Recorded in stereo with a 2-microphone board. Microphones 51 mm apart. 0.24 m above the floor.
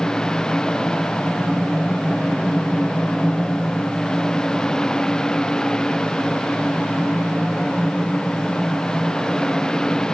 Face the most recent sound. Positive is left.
No sound to turn to.